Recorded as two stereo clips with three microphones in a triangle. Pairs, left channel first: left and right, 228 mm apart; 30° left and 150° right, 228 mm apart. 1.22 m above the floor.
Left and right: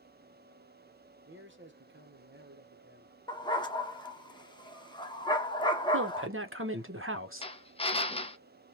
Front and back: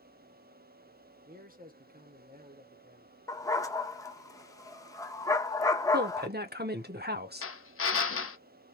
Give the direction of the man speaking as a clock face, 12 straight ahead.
4 o'clock.